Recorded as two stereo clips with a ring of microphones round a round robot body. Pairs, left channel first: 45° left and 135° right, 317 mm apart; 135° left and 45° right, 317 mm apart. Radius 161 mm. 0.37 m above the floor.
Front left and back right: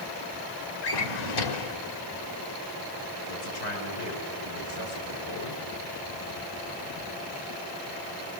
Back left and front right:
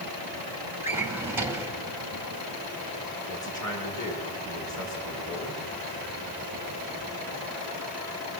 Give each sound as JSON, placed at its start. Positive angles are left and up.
{"t": 0.8, "sound": "a drawer", "azimuth_deg": 40, "distance_m": 1.5}
{"t": 3.3, "sound": "a man speaking", "azimuth_deg": 55, "distance_m": 5.0}